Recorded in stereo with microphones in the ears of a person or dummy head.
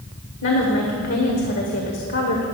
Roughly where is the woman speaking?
Left.